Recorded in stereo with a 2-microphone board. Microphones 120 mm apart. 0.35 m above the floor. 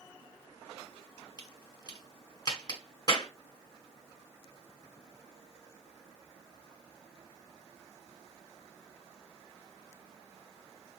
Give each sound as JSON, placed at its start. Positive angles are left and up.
{"t": 1.4, "sound": "a crack", "side_deg": 35, "distance_m": 1.6}